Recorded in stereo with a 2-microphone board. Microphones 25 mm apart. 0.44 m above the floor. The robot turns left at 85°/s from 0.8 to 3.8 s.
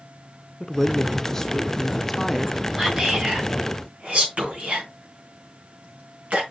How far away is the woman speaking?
About 0.7 m.